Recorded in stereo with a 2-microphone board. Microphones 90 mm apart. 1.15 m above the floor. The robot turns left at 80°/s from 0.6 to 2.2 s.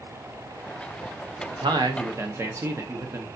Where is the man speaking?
85° right, 0.9 m; by 3.3 s 145° right, 0.9 m.